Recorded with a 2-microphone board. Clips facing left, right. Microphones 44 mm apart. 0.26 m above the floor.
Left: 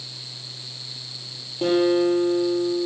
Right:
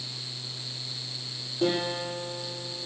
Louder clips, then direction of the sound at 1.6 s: Left 9 dB; 45° left (ahead or behind).